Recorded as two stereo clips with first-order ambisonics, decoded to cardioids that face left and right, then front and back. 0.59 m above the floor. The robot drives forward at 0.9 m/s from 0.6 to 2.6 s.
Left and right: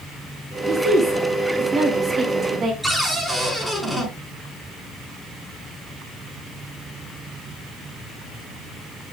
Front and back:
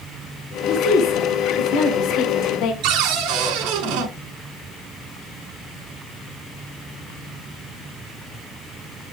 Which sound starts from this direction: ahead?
A woman speaking, at 0.7 s.